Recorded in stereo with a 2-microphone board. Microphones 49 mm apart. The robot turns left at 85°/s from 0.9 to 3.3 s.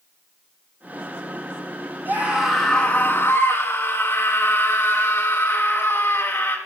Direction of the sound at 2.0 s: 130° right.